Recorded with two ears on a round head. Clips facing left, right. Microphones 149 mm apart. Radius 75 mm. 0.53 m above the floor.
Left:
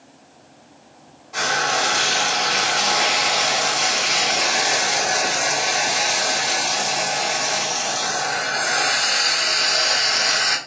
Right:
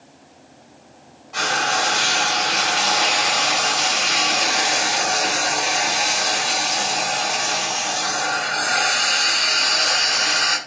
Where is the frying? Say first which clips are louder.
Even; 10° left (ahead or behind), 1.7 m.